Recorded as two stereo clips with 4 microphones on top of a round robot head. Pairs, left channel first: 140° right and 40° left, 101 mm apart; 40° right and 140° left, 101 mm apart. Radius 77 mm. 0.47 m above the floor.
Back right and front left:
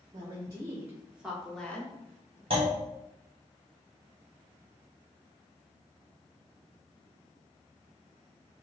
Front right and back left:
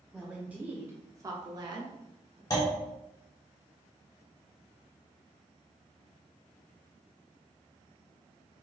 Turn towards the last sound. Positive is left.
turn(degrees=15)